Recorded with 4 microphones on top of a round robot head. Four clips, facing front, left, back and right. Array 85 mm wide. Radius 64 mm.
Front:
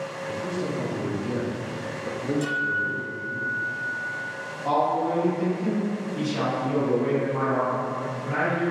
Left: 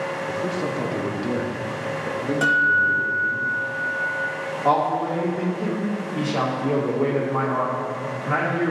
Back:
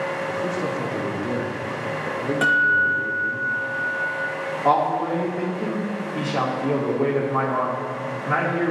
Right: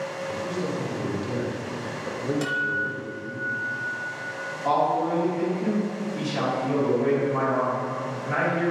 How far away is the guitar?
About 0.8 m.